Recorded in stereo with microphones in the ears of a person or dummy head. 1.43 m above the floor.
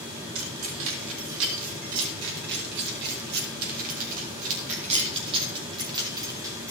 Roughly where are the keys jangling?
Right.